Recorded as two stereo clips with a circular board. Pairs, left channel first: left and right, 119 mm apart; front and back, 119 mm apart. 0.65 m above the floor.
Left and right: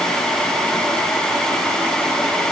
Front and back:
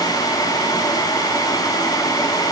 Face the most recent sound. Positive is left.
No sound to turn to.